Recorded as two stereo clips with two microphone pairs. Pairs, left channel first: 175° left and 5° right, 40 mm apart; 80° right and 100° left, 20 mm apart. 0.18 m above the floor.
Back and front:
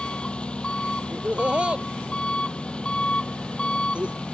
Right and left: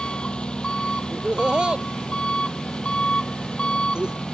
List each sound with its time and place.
0.0 s an engine running: 120° right
1.1 s laughter: 55° left